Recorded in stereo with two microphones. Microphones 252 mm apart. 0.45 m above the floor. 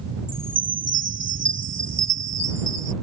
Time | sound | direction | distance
0.3 | a chime | 80° right | ?